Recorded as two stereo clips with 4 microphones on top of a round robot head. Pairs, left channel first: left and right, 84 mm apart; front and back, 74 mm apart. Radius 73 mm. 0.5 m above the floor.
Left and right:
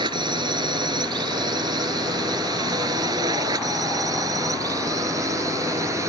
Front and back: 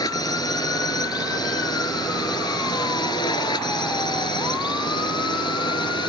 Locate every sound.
0.0 s a drone: 45° right; by 6.1 s 30° right